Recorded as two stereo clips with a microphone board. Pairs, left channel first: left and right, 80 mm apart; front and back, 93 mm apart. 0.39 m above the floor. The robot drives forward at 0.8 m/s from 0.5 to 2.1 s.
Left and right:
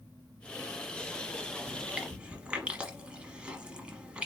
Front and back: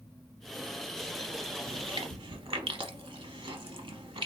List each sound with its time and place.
1.7 s chewing: 155° right, 0.7 m; by 4.3 s 165° right, 1.0 m